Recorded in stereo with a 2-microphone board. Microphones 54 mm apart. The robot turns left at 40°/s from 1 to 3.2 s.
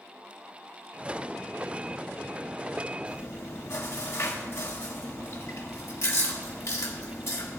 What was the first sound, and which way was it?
Chewing, 65° left (ahead or behind).